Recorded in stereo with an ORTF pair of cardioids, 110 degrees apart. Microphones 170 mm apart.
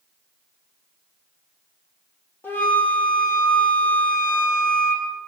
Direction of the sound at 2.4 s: 10° left.